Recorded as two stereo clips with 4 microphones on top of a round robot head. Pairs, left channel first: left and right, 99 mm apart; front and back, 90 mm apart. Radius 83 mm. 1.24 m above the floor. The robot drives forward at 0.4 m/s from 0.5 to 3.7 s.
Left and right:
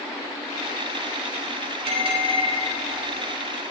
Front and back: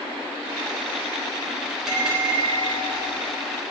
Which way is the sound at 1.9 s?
95° right.